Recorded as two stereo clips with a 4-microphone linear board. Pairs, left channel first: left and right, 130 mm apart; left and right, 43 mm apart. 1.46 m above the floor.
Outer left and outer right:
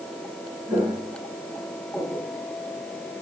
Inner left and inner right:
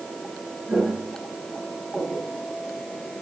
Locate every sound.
0.7 s footsteps: 5° right (ahead or behind), 5.5 m; by 2.3 s 10° left (ahead or behind), 5 m